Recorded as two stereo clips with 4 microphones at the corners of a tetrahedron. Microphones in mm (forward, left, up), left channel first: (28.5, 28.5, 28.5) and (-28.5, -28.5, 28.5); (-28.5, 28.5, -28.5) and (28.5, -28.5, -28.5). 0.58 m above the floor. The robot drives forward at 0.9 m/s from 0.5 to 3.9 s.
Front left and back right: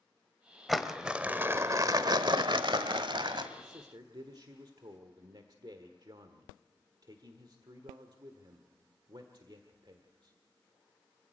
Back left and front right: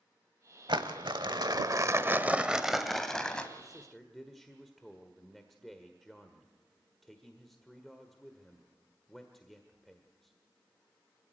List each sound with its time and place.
0.7 s crumpling: 45° right, 1.4 m; by 3.5 s 150° right, 1.8 m
3.6 s a man speaking: 130° right, 1.4 m; by 10.3 s 140° right, 1.5 m